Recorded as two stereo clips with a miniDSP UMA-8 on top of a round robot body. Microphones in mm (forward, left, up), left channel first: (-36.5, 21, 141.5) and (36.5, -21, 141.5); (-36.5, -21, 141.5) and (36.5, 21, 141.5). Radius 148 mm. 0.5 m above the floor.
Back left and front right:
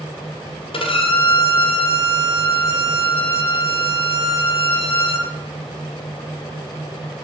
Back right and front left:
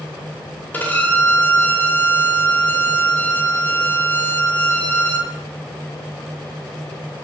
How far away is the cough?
I don't hear a cough.